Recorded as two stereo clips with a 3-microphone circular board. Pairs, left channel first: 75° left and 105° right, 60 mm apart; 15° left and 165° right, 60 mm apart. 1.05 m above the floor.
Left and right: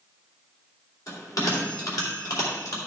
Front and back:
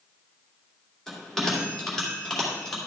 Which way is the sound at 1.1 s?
95° left.